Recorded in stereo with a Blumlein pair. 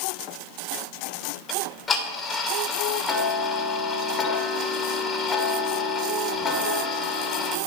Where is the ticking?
15° left, 1.6 m.